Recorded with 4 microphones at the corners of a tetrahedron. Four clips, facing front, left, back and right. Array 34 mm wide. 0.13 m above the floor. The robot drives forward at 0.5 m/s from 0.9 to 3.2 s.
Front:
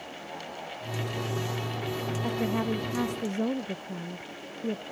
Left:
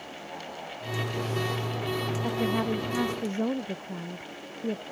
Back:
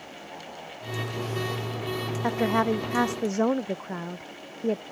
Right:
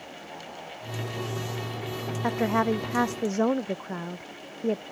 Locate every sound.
2.2 s a woman speaking: 135° right; by 4.8 s 140° right